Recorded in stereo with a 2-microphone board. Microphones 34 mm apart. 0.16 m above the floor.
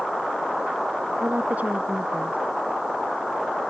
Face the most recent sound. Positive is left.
turn(degrees=-50)  # may be behind; listen again after turning